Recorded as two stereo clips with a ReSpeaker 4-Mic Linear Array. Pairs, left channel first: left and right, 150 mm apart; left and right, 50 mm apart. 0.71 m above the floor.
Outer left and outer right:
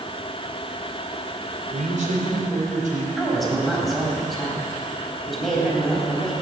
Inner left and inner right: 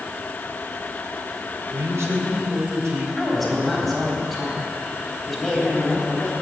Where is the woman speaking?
Centre (ahead or behind), 3.5 m.